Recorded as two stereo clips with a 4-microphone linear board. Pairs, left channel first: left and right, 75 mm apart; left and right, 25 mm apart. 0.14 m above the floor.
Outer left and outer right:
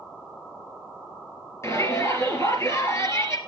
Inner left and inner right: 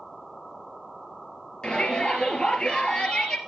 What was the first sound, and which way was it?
A shout, 40° left (ahead or behind).